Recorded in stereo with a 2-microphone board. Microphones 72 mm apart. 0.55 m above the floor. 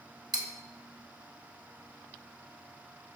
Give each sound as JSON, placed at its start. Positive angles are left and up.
{"t": 0.3, "sound": "cutlery clinking", "side_deg": -80, "distance_m": 0.9}